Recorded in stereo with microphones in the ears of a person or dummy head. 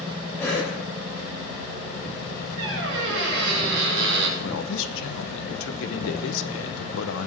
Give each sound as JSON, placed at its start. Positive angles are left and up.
{"t": 0.4, "sound": "a cough", "side_deg": 15, "distance_m": 6.0}
{"t": 2.6, "sound": "a squeak", "side_deg": -75, "distance_m": 3.5}
{"t": 4.4, "sound": "a man speaking", "side_deg": 80, "distance_m": 1.2}